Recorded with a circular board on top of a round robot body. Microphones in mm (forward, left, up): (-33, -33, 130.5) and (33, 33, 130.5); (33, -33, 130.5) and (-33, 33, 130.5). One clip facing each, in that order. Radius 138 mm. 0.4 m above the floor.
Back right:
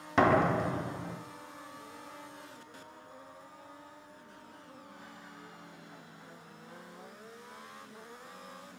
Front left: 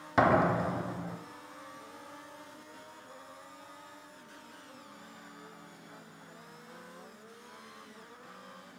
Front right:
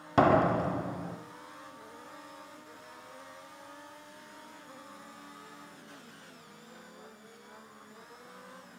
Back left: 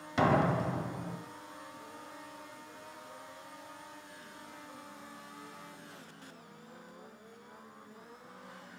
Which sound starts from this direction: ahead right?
A door slam, at 0.2 s.